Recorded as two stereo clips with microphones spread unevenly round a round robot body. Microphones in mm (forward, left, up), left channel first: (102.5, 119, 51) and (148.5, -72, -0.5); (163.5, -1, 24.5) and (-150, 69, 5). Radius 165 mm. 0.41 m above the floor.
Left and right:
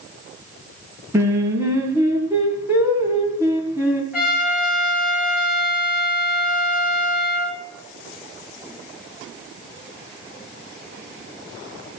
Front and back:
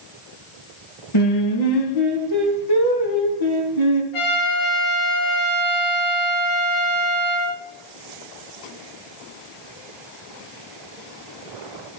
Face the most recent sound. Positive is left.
turn(degrees=5)